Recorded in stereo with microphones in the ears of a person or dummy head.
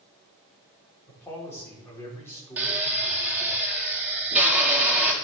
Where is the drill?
10° right (ahead or behind), 1.8 m.